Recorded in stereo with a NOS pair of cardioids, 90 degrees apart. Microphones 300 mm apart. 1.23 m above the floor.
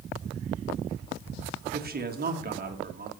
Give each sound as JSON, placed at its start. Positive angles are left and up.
{"t": 1.7, "sound": "a man speaking", "azimuth_deg": -30, "distance_m": 2.0}